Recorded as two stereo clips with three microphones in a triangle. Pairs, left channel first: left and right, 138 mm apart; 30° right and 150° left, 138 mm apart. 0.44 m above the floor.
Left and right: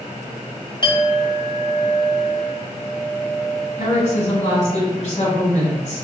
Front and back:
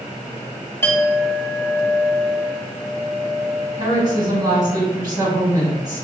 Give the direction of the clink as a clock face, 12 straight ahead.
11 o'clock.